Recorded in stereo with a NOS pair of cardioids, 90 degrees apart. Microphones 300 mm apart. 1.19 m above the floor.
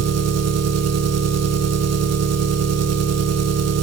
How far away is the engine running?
About 1.4 m.